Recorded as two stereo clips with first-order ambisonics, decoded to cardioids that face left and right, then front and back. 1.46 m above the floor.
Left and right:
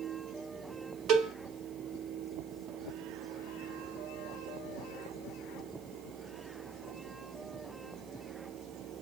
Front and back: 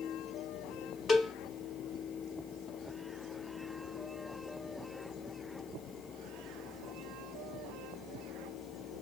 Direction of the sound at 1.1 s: 75° right.